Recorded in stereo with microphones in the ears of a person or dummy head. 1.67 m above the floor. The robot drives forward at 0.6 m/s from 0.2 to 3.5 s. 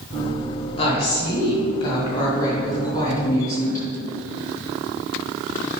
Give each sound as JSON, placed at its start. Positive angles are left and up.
{"t": 0.8, "sound": "a woman speaking", "side_deg": 35, "distance_m": 2.0}